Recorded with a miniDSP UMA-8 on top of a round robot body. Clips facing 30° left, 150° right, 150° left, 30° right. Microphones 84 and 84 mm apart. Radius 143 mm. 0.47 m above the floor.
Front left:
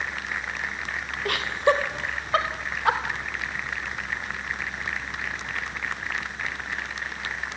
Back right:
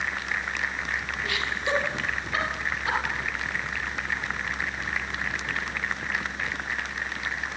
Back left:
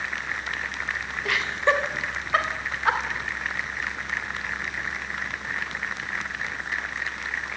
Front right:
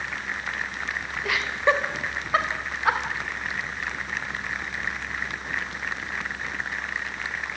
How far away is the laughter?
About 3 m.